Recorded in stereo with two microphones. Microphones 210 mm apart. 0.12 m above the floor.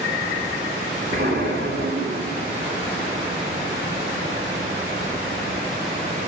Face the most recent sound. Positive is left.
turn(degrees=-55)  # may be behind; listen again after turning